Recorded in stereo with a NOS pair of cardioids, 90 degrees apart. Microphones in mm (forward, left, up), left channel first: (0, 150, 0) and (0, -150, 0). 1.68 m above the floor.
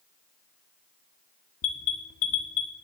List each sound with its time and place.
1.6 s an alarm: 45° left, 1.5 m